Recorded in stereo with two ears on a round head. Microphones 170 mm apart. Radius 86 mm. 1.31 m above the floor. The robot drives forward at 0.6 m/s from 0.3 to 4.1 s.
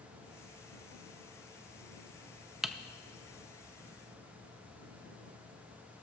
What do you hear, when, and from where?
2.6 s typing on a keyboard: 5° right (ahead or behind), 0.5 m